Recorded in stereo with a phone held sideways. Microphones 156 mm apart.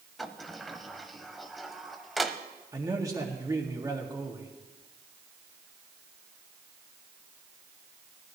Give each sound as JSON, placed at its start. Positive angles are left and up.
{"t": 0.2, "sound": "a sliding door", "side_deg": 0, "distance_m": 0.7}
{"t": 2.7, "sound": "a man speaking", "side_deg": -25, "distance_m": 1.9}